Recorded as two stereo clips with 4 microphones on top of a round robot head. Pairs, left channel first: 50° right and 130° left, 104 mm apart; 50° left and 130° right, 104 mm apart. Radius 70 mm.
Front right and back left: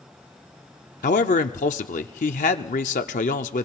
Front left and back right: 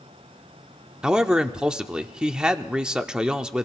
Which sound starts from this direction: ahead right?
A man speaking, at 1.0 s.